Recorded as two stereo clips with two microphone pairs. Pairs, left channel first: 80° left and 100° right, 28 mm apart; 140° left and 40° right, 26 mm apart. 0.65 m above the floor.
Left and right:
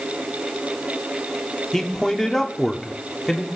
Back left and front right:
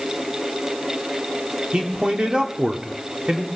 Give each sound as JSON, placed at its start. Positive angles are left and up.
{"t": 1.7, "sound": "a man speaking", "azimuth_deg": 10, "distance_m": 1.3}